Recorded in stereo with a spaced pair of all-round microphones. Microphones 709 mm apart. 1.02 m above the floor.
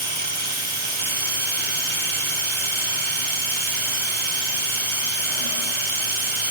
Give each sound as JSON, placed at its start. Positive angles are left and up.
{"t": 0.0, "sound": "a machine running", "side_deg": -45, "distance_m": 1.0}